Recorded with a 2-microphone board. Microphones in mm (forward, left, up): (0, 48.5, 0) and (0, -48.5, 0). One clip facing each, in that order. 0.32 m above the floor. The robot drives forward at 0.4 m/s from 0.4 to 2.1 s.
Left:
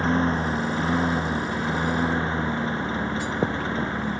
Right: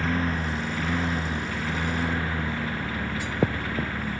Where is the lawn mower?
30° left (ahead or behind); by 4.2 s 25° left (ahead or behind).